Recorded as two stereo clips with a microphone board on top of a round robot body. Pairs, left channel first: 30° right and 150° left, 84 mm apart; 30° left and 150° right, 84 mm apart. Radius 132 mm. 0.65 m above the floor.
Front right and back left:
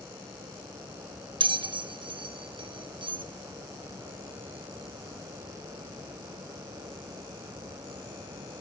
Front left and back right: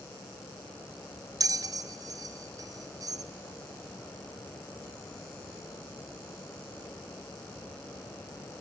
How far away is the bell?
About 1.5 m.